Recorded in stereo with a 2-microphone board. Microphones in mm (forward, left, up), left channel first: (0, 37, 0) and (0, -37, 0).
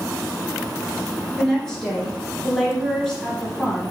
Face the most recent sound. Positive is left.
turn(degrees=0)  # may be behind; listen again after turning